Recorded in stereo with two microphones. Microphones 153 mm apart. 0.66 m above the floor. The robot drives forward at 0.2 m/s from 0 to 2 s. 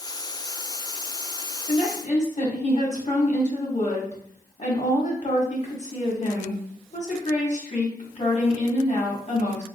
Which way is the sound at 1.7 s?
50° left (ahead or behind).